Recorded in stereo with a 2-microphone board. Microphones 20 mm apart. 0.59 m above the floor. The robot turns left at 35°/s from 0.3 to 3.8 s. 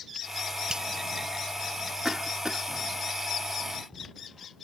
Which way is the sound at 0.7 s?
50° right (ahead or behind).